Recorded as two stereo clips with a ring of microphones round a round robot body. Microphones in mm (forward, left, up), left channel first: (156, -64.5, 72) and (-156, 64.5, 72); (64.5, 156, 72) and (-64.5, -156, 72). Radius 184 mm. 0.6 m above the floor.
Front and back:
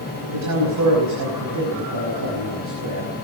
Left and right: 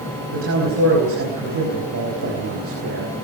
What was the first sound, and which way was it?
A man speaking, 165° right.